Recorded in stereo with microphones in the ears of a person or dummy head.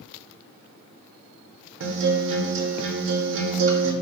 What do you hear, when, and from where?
1.8 s a guitar: 70° right (ahead or behind), 0.7 m